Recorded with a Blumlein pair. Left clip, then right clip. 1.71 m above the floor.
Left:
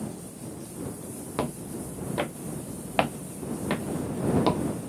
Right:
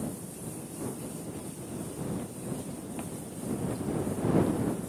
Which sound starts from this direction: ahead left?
Footsteps, at 1.4 s.